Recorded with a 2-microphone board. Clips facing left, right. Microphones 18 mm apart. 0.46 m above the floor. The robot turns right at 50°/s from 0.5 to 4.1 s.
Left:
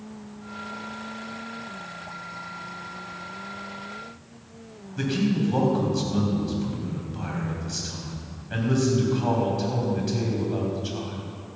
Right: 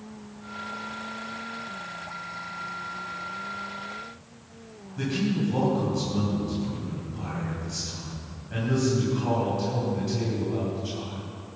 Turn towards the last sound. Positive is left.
turn(degrees=30)  # may be behind; listen again after turning